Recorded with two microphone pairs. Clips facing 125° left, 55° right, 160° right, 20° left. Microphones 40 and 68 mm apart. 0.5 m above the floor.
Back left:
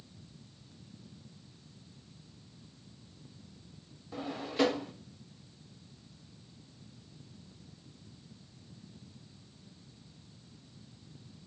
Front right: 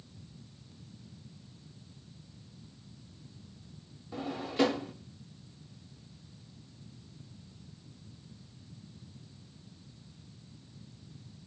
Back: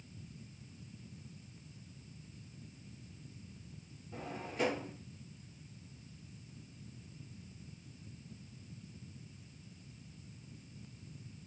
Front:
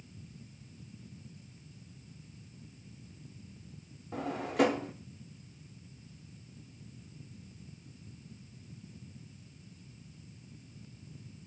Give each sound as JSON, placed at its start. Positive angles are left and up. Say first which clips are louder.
{"t": 4.1, "sound": "a drawer", "louder": "front right 1 dB, front 9 dB", "azimuth_deg": 30, "distance_m": 0.5}